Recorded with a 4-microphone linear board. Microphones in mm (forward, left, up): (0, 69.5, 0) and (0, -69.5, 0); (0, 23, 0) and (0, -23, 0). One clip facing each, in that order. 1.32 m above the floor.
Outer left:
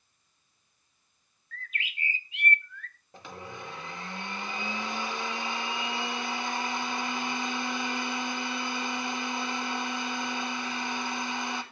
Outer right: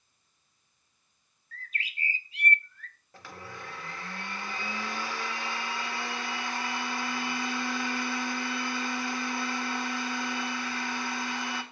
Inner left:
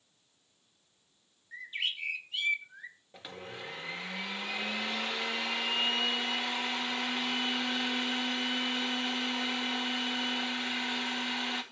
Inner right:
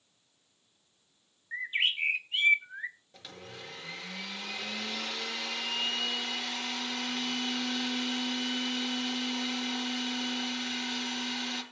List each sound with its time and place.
1.5 s a bird: 35° right (ahead or behind), 1.0 m
3.1 s a blender: 20° left (ahead or behind), 1.9 m